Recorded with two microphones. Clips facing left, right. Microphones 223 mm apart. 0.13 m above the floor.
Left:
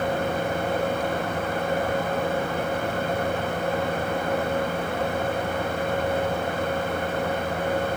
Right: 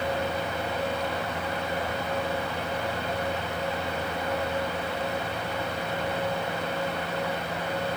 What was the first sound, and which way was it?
Only background noise.